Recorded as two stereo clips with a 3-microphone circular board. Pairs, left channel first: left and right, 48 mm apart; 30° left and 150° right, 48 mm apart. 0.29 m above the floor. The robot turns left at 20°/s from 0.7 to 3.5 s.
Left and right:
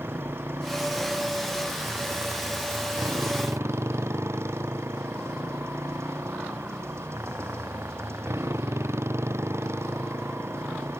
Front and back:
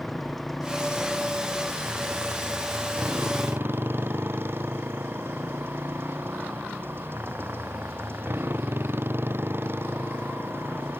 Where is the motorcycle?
55° right; by 11.0 s 110° right.